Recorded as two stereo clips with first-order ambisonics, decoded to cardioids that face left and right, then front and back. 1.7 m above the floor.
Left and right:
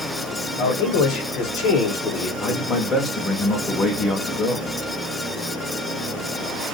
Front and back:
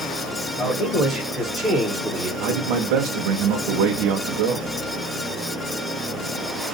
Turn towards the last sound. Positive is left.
turn(degrees=160)